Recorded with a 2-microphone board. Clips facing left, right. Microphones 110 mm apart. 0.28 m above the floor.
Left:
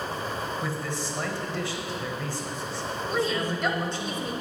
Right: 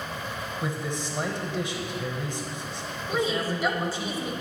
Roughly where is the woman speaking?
Centre.